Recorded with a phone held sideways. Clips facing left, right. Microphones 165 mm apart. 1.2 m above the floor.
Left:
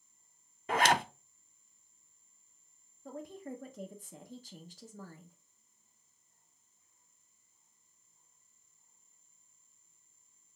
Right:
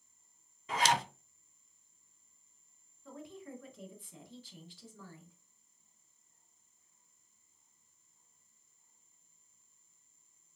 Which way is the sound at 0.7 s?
60° left (ahead or behind).